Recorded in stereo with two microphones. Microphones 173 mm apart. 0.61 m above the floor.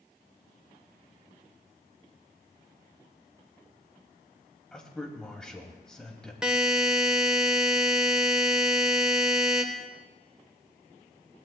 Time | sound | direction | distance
4.7 | a man speaking | 5° left (ahead or behind) | 3 m
6.4 | a buzzer | 5° right (ahead or behind) | 1.4 m